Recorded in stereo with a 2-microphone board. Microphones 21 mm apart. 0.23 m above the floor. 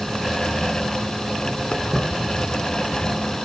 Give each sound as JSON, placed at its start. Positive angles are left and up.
{"t": 1.7, "sound": "footsteps", "side_deg": 45, "distance_m": 3.5}